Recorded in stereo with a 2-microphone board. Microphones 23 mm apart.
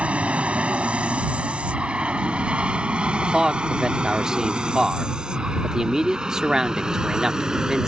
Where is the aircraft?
65° right (ahead or behind); by 7.9 s 30° right (ahead or behind).